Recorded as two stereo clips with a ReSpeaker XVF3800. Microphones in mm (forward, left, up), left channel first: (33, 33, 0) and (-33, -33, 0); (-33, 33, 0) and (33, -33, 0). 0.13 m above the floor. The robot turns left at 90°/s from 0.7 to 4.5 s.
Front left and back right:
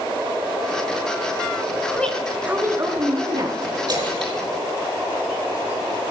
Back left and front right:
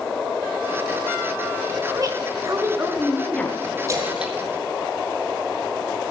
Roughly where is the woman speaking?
Ahead.